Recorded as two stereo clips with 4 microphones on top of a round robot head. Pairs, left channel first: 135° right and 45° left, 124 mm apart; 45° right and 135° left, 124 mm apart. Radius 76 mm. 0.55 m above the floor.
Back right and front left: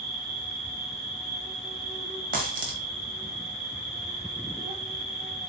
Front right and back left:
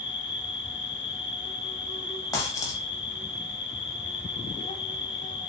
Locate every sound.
0.0 s an insect: 5° left, 0.9 m
2.3 s a dropped coin: 25° left, 0.7 m